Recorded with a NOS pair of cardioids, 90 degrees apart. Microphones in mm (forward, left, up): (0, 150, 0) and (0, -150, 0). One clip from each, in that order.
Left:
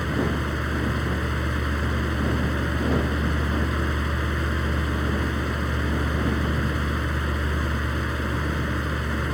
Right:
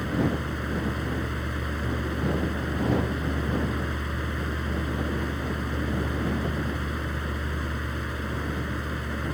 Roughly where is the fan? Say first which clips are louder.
Left 2 dB; ahead left.